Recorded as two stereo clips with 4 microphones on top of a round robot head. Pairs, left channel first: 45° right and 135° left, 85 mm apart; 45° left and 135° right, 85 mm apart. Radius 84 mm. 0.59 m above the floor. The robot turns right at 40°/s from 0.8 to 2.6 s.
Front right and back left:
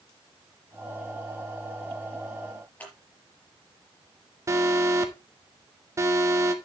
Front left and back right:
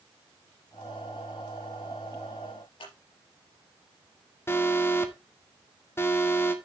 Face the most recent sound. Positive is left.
turn(degrees=95)